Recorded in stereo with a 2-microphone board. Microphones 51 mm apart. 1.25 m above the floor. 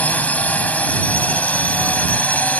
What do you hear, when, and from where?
0.0 s a drone: 30° left (ahead or behind)